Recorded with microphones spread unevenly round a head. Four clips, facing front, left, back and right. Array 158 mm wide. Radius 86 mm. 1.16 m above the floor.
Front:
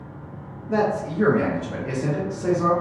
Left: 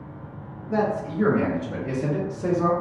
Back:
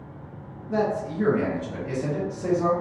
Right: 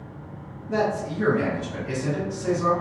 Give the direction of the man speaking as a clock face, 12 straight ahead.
1 o'clock.